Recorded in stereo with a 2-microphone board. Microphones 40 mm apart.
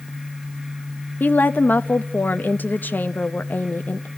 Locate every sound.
1.2 s a woman speaking: 50° left (ahead or behind), 0.9 m